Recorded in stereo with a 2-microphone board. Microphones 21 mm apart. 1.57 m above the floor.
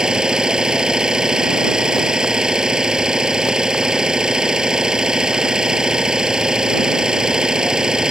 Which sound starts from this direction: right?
An engine running, at 0.0 s.